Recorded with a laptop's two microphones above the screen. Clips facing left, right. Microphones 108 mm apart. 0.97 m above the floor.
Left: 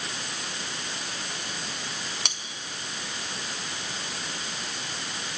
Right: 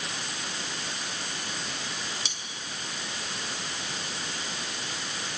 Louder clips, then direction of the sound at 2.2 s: Left 4 dB; 65° left (ahead or behind).